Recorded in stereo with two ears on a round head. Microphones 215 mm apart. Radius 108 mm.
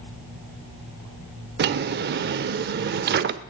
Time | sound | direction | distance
1.6 | a drawer | 40° right (ahead or behind) | 0.6 m